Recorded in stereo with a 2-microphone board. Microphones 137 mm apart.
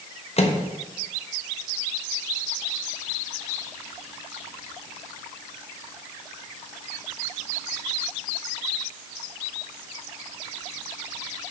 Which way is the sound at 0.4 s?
50° left (ahead or behind).